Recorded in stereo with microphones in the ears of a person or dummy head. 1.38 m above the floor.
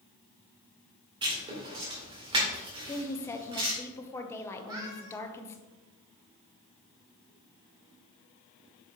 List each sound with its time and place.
1.2 s writing: 25° right (ahead or behind), 2 m
2.9 s a woman speaking: 15° left (ahead or behind), 0.8 m
4.6 s a cat meowing: 20° right (ahead or behind), 1.5 m